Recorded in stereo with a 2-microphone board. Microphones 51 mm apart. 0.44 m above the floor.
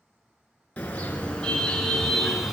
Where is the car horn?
25° left (ahead or behind), 3.5 m; by 2.5 s 5° right (ahead or behind), 2.5 m.